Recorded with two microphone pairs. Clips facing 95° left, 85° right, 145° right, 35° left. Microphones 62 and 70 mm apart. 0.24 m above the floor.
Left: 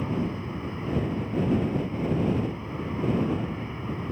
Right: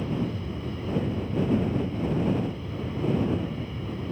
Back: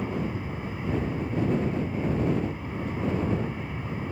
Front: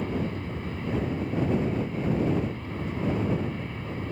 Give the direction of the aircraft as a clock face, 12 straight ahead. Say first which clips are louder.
Left 1 dB, even; 7 o'clock.